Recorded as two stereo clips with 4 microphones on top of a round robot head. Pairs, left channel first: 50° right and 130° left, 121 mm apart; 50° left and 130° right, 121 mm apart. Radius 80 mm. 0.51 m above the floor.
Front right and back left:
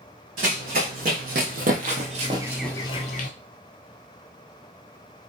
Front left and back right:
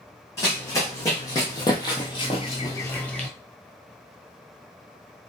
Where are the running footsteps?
120° left, 2 m; by 3.3 s 35° right, 0.8 m.